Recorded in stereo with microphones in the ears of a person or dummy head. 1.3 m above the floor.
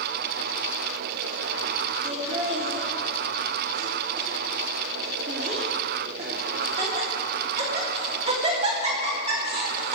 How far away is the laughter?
About 3 m.